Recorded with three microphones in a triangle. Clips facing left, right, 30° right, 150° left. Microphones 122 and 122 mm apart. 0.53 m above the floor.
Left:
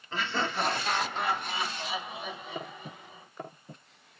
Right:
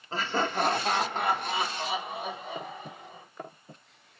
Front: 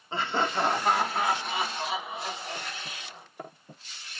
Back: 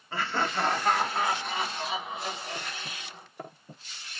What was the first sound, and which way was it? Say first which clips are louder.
Laughter: right 3 dB, front 2 dB; 80° right.